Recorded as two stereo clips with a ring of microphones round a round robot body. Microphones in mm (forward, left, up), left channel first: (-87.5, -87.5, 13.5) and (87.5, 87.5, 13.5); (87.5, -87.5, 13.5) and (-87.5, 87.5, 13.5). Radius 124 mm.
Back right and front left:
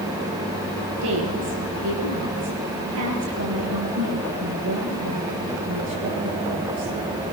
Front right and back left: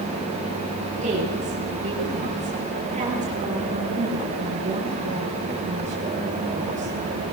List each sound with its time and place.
1.0 s a woman speaking: 70° left, 8 m